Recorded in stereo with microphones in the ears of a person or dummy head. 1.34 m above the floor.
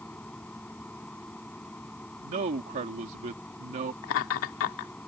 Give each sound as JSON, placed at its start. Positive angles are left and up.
{"t": 0.0, "sound": "a machine running", "side_deg": 5}
{"t": 2.2, "sound": "a man speaking", "side_deg": -40}
{"t": 4.0, "sound": "laughter", "side_deg": 75}